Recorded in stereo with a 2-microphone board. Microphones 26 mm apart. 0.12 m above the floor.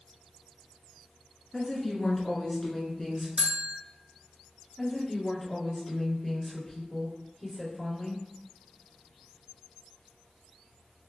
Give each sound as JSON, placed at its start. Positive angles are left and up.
{"t": 1.5, "sound": "a woman speaking", "side_deg": 20, "distance_m": 1.2}
{"t": 3.4, "sound": "a bell", "side_deg": -45, "distance_m": 0.7}
{"t": 4.8, "sound": "a woman speaking", "side_deg": 25, "distance_m": 1.9}